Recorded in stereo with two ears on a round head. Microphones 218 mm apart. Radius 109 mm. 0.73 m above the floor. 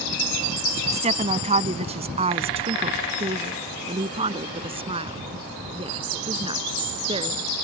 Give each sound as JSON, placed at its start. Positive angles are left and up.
{"t": 0.9, "sound": "a woman speaking", "side_deg": -30}